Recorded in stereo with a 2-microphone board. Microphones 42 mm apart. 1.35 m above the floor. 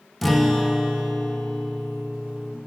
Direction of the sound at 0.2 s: Centre (ahead or behind).